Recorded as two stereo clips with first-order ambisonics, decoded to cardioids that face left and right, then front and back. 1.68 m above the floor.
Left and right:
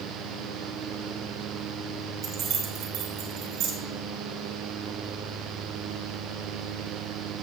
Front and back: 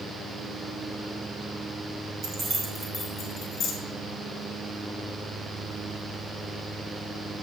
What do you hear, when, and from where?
2.2 s keys jangling: 140° right, 1.4 m; by 3.7 s 55° right, 2.0 m